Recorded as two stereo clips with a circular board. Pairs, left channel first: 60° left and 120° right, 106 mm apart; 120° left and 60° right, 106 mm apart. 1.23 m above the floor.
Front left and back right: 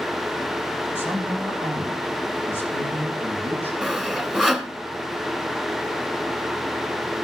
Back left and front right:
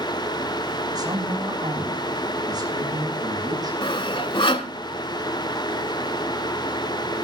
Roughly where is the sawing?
Behind left.